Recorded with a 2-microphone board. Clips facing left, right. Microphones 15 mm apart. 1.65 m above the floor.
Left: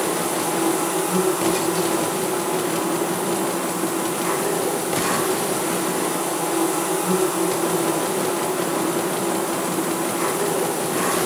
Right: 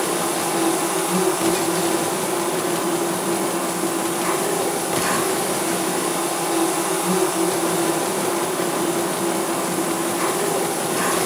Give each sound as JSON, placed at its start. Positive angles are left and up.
{"t": 0.0, "sound": "an insect", "side_deg": -60, "distance_m": 5.5}